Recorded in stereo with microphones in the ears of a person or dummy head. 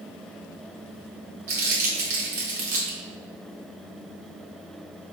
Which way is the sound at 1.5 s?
15° right (ahead or behind).